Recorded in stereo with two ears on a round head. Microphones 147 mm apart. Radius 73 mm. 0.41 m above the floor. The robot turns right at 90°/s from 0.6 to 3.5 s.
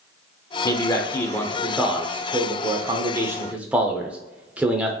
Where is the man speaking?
20° left (ahead or behind), 0.8 m; by 4.9 s 10° right (ahead or behind), 0.8 m.